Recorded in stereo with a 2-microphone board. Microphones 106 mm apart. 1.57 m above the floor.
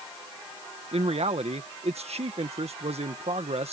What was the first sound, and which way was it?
A man speaking, 75° right (ahead or behind).